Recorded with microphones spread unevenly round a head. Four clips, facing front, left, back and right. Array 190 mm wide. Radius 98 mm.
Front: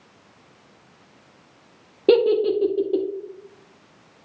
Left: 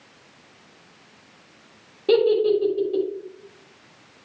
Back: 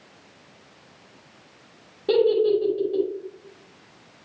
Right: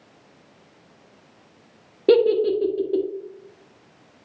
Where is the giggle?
40° right, 1.3 m.